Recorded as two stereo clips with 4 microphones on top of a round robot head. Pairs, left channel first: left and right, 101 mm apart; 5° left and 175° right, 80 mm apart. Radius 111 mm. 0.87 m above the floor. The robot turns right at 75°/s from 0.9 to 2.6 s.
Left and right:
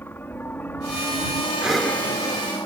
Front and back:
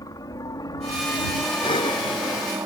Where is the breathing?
10° right; by 2.6 s 65° left.